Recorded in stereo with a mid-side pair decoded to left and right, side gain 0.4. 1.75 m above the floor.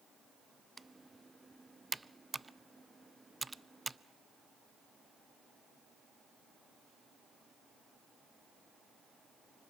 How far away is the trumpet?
I don't hear a trumpet.